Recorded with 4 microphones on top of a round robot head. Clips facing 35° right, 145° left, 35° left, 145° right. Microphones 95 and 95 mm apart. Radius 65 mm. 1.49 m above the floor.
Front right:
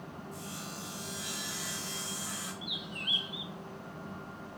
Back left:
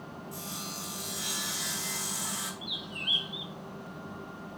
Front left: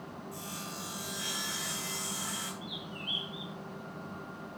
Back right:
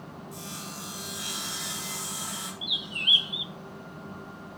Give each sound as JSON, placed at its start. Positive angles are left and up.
{"t": 0.3, "sound": "sawing", "azimuth_deg": 145, "distance_m": 4.5}
{"t": 2.6, "sound": "a bird", "azimuth_deg": -125, "distance_m": 0.5}